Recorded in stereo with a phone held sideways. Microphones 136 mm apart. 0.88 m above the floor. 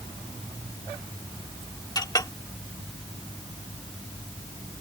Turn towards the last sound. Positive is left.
turn(degrees=30)  # may be behind; listen again after turning